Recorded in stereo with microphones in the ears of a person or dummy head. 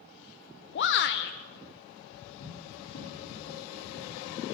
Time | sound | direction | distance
0.8 | a shout | 55° left (ahead or behind) | 0.7 m
2.4 | running footsteps | 70° left (ahead or behind) | 5.5 m